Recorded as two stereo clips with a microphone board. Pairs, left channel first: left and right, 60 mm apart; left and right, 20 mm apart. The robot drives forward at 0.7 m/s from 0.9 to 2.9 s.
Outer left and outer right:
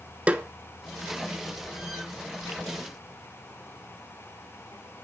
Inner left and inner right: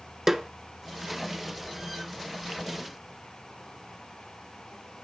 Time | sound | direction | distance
0.3 | a snare drum | 20° right (ahead or behind) | 0.7 m